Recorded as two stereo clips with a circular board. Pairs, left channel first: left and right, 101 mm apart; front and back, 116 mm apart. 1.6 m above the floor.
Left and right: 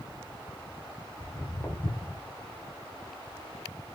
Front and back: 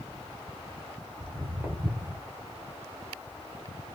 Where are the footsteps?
95° left, 1.7 m; by 2.2 s 120° left, 1.9 m.